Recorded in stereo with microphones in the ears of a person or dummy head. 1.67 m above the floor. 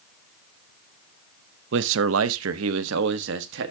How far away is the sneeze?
No sneeze in this recording.